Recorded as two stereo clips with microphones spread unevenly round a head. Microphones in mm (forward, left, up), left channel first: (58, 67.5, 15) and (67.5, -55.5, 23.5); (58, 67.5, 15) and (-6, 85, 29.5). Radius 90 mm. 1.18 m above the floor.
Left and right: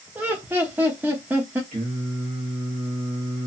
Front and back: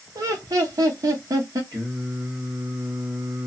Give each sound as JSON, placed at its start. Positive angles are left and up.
{"t": 0.1, "sound": "laughter", "azimuth_deg": -160, "distance_m": 0.6}
{"t": 1.7, "sound": "singing", "azimuth_deg": -135, "distance_m": 1.1}